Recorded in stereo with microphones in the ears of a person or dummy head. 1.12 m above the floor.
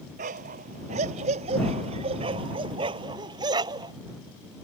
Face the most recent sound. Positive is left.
turn(degrees=-20)  # may be behind; listen again after turning